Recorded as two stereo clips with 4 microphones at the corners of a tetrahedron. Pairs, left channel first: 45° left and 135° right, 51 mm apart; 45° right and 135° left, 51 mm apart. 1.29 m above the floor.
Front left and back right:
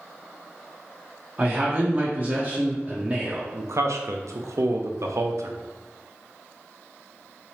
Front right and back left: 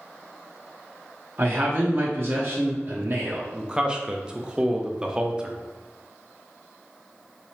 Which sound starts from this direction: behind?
A man speaking, at 1.4 s.